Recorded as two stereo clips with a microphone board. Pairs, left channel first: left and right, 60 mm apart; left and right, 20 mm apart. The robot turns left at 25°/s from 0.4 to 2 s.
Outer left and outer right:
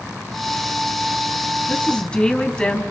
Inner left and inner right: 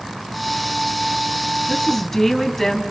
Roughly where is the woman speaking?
Left.